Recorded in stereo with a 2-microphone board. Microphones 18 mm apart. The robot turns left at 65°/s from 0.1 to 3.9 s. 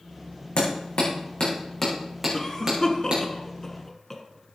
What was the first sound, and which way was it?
Hammering, 75° left (ahead or behind).